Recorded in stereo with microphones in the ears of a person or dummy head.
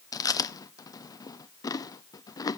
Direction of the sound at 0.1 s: 25° left (ahead or behind).